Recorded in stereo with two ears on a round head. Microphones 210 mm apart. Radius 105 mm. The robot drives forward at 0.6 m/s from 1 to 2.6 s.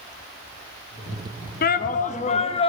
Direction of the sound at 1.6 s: 45° left (ahead or behind).